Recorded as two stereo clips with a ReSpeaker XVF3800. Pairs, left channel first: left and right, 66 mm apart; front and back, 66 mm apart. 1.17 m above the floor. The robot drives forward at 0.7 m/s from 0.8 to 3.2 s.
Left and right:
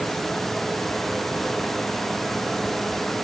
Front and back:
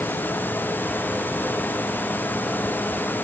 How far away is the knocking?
No knocking in this recording.